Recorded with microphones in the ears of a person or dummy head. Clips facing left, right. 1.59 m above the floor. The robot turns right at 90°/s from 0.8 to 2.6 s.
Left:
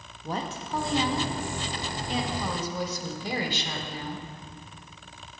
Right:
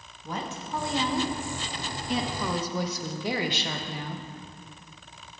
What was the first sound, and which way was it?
A woman speaking, 145° left.